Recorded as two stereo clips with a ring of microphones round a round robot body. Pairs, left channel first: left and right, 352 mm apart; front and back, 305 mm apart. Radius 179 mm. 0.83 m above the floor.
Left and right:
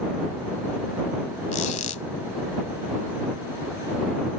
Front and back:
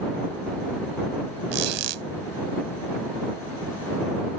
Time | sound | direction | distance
1.5 | a squeak | 160° left | ?